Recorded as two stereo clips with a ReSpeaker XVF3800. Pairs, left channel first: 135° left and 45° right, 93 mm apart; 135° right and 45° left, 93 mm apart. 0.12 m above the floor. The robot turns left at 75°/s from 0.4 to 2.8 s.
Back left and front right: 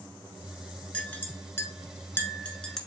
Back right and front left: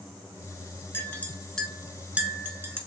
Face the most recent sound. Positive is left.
turn(degrees=55)